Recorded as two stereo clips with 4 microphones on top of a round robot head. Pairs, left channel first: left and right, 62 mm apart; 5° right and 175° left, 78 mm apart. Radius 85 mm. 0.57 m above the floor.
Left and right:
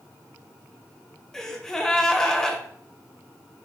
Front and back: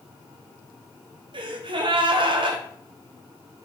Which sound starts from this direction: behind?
A gasp, at 1.3 s.